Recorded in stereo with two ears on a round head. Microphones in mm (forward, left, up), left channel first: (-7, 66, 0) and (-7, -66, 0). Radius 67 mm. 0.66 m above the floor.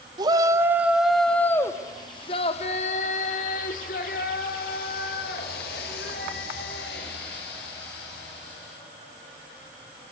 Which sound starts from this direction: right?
A shout, at 0.2 s.